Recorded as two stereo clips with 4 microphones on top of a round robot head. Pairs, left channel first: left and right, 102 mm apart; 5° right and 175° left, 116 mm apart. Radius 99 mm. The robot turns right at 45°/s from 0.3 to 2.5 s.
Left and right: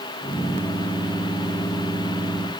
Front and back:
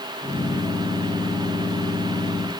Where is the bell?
No bell in this recording.